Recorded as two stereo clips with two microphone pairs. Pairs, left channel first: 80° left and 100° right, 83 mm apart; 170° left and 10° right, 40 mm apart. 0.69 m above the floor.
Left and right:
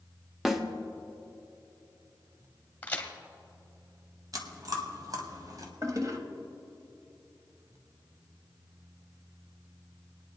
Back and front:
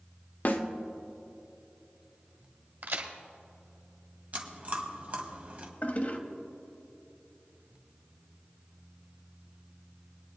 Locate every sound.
0.5 s a snare drum: 175° left, 1.0 m
2.8 s a crack: 15° left, 1.5 m
4.3 s chewing: 60° right, 1.4 m
5.8 s a toilet flushing: 145° right, 1.1 m